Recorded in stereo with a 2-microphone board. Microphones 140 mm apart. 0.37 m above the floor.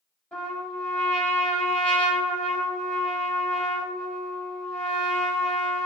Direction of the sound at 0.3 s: 10° left (ahead or behind).